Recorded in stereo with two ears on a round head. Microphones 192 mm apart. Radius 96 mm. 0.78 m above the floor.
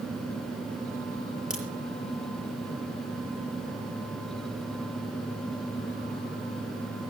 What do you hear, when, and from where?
1.5 s a crack: 5° right (ahead or behind), 5.5 m